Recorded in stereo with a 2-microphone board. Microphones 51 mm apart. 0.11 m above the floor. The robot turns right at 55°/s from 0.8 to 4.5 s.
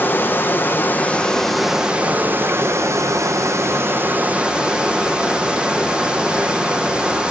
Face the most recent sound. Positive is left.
turn(degrees=-20)